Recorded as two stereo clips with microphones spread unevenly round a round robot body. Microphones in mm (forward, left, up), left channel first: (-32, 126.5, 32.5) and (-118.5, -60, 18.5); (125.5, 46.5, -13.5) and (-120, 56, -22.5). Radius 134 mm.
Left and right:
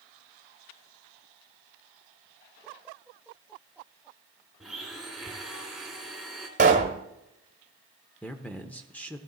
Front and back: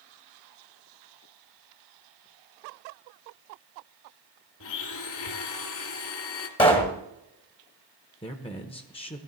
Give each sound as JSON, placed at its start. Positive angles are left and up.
{"t": 4.6, "sound": "a blender", "azimuth_deg": -25, "distance_m": 1.6}
{"t": 6.6, "sound": "a pop", "azimuth_deg": -70, "distance_m": 1.3}
{"t": 8.2, "sound": "a man speaking", "azimuth_deg": -15, "distance_m": 0.9}